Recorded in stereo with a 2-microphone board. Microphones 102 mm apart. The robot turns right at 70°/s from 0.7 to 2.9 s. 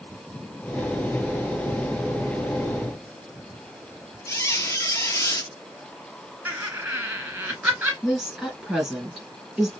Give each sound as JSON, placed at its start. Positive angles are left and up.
{"t": 4.3, "sound": "a squeak", "side_deg": 30, "distance_m": 0.8}
{"t": 6.5, "sound": "laughter", "side_deg": -10, "distance_m": 1.9}
{"t": 8.0, "sound": "a woman speaking", "side_deg": 0, "distance_m": 3.0}